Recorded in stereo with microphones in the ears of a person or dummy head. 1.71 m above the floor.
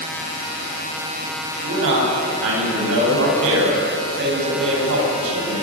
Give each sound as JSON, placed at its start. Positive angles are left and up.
{"t": 1.6, "sound": "a man speaking", "side_deg": -80, "distance_m": 10.0}